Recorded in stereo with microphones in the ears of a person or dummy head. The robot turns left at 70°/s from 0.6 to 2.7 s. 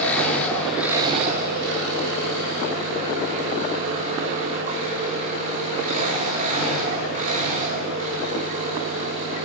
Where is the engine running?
10° left, 5.5 m; by 9.5 s 135° right, 5.5 m.